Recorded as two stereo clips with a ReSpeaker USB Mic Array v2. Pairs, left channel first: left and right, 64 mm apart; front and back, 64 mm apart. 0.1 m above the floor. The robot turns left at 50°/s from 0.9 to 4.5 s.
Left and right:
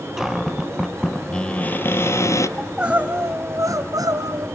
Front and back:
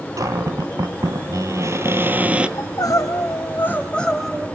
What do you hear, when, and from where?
0.2 s a cupboard door: 175° right, 0.9 m; by 2.5 s 110° left, 0.9 m
2.6 s crying: 5° right, 2 m; by 4.5 s 100° right, 2 m